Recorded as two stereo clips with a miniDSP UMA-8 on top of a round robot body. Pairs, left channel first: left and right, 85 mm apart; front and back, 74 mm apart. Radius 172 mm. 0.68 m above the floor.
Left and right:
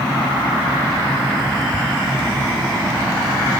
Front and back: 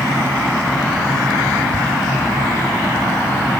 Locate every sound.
1.7 s ticking: 160° right, 3 m